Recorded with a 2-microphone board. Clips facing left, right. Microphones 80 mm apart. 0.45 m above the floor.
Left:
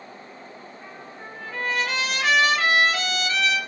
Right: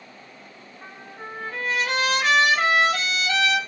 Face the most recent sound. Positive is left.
turn(degrees=-65)  # may be behind; listen again after turning